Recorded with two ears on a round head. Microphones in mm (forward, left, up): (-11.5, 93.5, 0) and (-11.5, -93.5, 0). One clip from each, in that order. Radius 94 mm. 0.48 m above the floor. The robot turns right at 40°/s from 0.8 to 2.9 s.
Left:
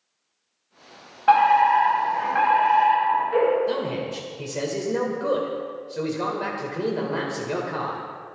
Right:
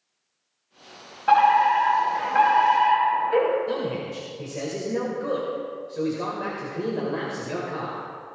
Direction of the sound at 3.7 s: 25° left (ahead or behind).